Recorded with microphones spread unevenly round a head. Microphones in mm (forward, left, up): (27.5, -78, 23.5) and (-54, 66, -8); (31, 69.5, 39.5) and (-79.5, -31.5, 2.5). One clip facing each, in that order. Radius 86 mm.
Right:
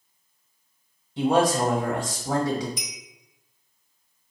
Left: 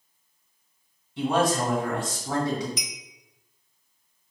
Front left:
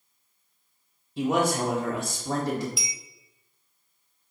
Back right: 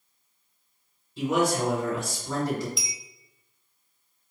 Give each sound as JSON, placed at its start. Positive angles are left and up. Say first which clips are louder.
{"t": 1.2, "sound": "a man speaking", "louder": "right 3 dB, even", "azimuth_deg": 10, "distance_m": 0.9}
{"t": 2.8, "sound": "a clink", "louder": "even, even", "azimuth_deg": 135, "distance_m": 0.7}